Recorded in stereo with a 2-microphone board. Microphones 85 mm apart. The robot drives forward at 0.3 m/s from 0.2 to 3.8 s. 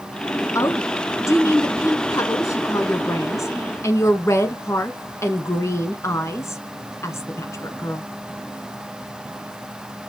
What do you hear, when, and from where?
0.6 s a woman speaking: 35° left (ahead or behind), 1.4 m